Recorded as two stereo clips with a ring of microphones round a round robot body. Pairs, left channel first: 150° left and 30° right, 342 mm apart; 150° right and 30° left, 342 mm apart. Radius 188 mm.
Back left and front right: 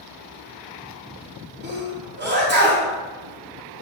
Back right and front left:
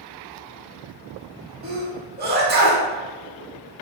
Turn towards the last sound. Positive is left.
turn(degrees=0)